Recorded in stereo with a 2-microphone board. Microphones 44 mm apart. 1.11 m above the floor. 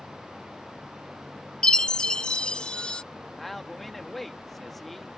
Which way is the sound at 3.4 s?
5° left (ahead or behind).